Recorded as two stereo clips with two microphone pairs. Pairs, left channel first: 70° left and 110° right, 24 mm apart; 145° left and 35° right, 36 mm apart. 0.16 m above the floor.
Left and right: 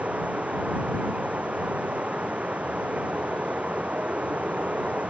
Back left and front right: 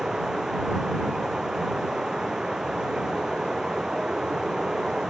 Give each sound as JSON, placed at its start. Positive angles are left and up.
{"t": 0.0, "sound": "running water", "azimuth_deg": -110}